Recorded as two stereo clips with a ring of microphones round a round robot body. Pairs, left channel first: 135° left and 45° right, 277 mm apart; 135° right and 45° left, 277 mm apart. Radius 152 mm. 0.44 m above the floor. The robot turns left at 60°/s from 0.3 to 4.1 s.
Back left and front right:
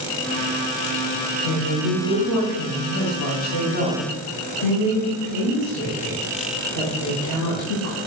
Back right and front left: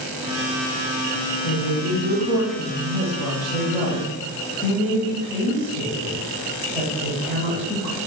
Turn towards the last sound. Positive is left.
turn(degrees=125)